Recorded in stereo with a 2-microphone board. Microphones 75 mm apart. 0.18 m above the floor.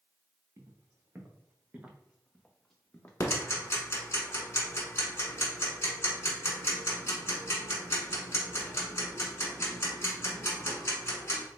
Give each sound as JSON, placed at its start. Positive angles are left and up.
{"t": 0.6, "sound": "footsteps", "side_deg": -40, "distance_m": 1.5}
{"t": 3.2, "sound": "ticking", "side_deg": 35, "distance_m": 1.2}